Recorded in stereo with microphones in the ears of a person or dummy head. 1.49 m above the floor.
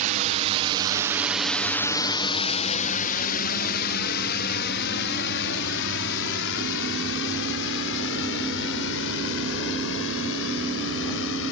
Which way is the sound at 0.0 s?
40° right (ahead or behind).